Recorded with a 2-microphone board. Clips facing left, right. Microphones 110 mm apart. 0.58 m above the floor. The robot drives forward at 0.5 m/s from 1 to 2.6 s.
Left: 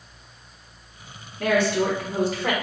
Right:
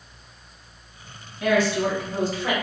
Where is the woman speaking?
60° left (ahead or behind), 1.4 m; by 2.5 s 65° left (ahead or behind), 1.4 m.